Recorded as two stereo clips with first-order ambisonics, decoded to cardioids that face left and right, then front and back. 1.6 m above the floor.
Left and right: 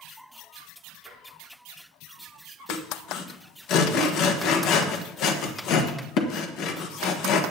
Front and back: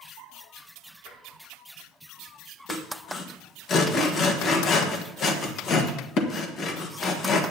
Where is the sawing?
55° left, 1.3 m.